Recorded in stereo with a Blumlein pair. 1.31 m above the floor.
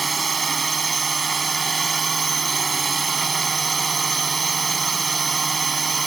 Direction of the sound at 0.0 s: 15° right.